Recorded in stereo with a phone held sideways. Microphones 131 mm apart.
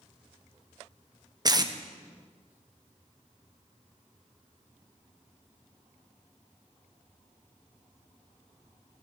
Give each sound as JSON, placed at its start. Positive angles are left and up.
{"t": 1.4, "sound": "tape being pulled", "side_deg": -30, "distance_m": 0.6}